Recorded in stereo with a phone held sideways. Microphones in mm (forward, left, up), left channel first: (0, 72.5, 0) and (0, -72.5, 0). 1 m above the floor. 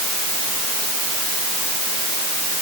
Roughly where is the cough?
I don't hear a cough.